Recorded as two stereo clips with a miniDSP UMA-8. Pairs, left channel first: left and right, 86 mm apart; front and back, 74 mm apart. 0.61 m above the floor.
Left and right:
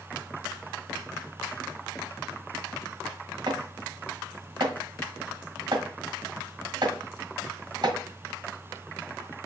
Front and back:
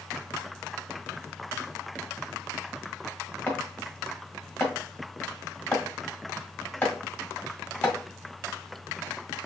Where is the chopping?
60° right, 2 m.